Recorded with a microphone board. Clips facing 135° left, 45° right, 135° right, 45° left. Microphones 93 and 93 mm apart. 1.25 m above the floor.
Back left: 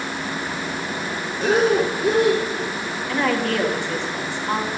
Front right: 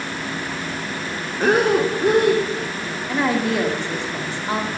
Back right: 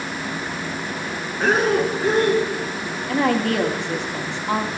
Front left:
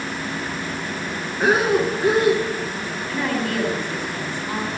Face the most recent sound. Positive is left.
turn(degrees=-120)